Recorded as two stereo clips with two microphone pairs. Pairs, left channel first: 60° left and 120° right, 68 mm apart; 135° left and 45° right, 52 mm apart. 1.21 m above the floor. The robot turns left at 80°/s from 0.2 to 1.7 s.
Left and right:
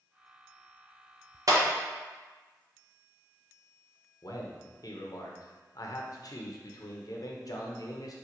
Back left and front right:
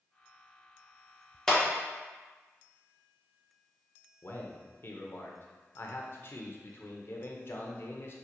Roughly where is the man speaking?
Left.